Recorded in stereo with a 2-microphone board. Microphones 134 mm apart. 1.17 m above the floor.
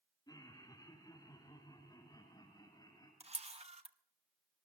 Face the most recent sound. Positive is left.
turn(degrees=-50)  # may be behind; listen again after turning